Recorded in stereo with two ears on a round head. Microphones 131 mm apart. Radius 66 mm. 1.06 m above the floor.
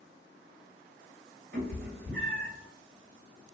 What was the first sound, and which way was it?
A cat meowing, 75° right (ahead or behind).